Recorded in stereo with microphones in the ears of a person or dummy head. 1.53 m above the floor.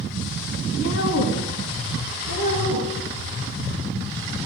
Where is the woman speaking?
70° left (ahead or behind), 1.7 m; by 2.9 s 60° left (ahead or behind), 3.5 m.